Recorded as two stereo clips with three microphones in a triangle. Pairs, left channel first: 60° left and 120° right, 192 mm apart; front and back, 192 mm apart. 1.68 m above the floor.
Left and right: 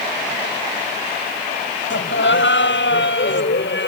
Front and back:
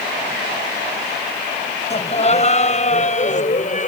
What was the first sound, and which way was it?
Laughter, 55° left.